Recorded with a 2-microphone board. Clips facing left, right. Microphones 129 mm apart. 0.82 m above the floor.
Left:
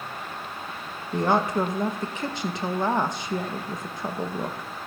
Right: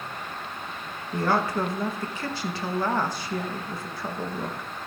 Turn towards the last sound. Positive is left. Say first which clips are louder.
# left 2 dB
turn(degrees=20)  # may be behind; listen again after turning